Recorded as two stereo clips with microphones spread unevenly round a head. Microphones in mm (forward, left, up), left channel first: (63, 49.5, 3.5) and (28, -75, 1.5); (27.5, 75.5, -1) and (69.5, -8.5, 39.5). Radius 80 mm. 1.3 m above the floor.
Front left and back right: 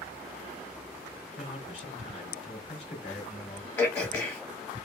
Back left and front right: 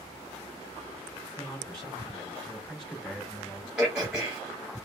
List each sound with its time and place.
1.4 s a man speaking: 35° left, 2.5 m
3.8 s throat clearing: 5° left, 1.9 m